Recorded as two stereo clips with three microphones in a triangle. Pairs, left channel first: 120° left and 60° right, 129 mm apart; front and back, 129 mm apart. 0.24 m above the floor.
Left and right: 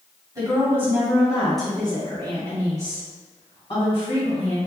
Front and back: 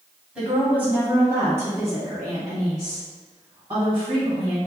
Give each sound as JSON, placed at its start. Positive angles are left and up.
{"t": 0.3, "sound": "a woman speaking", "azimuth_deg": -105, "distance_m": 1.7}